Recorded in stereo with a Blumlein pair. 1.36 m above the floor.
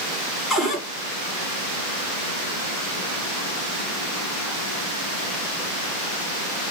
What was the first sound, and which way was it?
A cupboard door, 10° left.